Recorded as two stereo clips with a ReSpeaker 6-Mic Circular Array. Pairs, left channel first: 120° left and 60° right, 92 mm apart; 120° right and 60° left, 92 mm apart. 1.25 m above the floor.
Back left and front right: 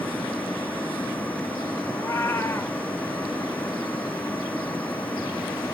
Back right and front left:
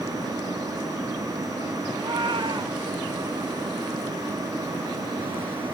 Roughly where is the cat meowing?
Ahead left.